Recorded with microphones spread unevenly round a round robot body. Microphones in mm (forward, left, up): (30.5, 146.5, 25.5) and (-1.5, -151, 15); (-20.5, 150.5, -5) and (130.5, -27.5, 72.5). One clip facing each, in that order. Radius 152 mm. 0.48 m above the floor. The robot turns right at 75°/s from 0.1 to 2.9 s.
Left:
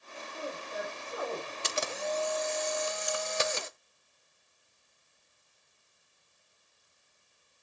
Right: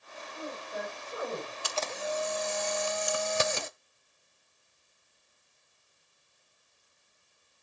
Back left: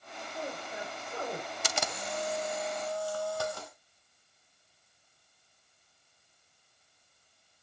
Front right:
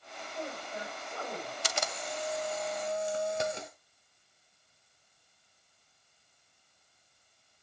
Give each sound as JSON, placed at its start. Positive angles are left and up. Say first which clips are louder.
{"t": 0.3, "sound": "a woman speaking", "louder": "even, back left 1 dB", "azimuth_deg": 120, "distance_m": 8.5}
{"t": 1.6, "sound": "a camera shutter", "louder": "left 1 dB, back left 1 dB", "azimuth_deg": 150, "distance_m": 0.6}